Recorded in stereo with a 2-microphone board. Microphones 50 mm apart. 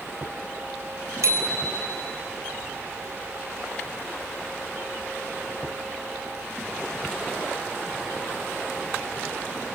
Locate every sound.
1.2 s a bicycle bell: 80° right, 4 m